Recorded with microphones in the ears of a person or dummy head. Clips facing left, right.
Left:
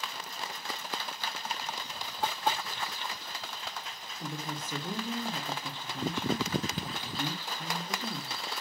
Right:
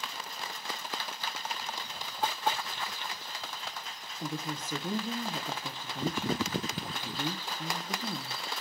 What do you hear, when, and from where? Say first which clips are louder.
4.2 s a woman speaking: right 2 dB; 10° right (ahead or behind), 0.6 m